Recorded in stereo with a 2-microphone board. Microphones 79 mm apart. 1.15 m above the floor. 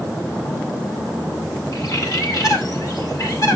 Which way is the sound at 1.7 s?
55° left (ahead or behind).